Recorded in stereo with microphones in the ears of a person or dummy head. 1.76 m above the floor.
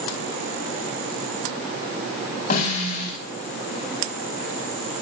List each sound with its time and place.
2.5 s a snare drum: 45° left (ahead or behind), 5 m